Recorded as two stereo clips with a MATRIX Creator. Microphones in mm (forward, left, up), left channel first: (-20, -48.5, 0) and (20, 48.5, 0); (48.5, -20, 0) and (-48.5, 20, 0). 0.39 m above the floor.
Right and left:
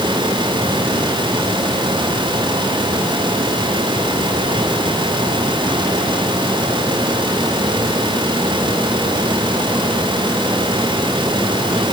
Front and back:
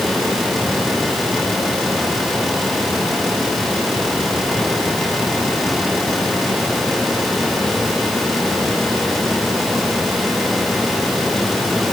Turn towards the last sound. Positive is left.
No sound to turn to.